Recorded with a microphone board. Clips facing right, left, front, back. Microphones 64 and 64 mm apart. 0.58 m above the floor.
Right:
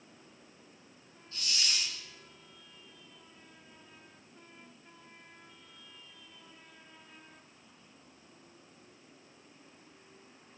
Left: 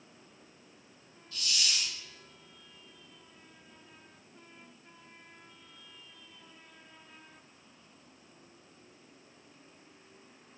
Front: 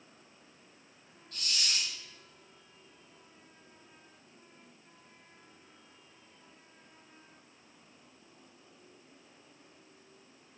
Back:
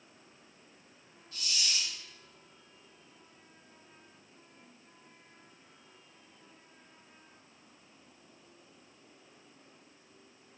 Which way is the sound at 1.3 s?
35° right.